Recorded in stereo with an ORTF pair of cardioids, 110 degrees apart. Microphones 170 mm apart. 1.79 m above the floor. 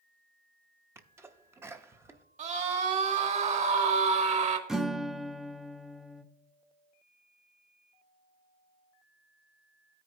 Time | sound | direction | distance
0.9 | a sneeze | 15° right | 0.7 m
2.4 | a scream | 40° right | 1.8 m
4.7 | a guitar | 5° right | 0.6 m